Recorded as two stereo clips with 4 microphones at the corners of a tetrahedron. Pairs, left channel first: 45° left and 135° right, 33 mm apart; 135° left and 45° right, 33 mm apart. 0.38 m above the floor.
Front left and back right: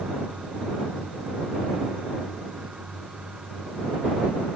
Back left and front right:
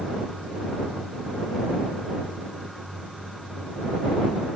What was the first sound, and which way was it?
Only background noise.